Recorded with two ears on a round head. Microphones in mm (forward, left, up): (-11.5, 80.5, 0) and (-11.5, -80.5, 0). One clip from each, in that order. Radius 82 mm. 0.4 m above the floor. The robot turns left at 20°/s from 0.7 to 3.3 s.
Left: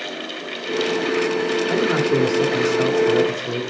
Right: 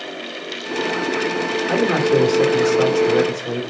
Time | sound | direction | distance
1.7 | a man speaking | 5° right (ahead or behind) | 1.4 m